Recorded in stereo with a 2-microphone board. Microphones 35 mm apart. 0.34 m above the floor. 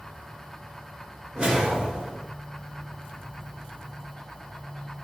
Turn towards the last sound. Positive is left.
turn(degrees=-25)  # may be behind; listen again after turning